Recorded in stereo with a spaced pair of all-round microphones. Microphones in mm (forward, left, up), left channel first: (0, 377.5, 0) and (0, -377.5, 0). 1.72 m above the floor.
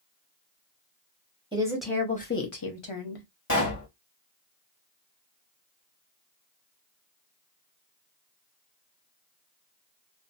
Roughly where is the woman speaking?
Centre.